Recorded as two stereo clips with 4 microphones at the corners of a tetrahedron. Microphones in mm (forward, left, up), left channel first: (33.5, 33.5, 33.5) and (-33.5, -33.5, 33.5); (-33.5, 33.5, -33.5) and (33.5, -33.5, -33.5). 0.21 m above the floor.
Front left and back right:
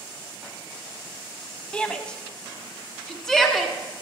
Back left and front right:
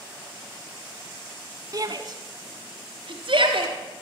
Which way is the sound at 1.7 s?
25° right.